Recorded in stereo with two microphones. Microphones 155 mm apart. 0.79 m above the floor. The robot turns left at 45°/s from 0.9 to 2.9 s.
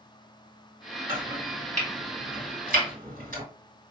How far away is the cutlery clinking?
I don't hear cutlery clinking.